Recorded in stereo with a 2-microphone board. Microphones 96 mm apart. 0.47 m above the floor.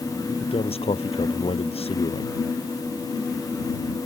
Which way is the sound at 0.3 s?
85° left.